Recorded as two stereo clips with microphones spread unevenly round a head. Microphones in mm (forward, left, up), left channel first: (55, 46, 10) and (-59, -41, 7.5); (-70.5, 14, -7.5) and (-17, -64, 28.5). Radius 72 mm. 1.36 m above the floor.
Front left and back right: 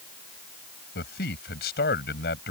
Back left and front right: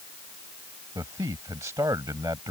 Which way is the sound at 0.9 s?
15° left.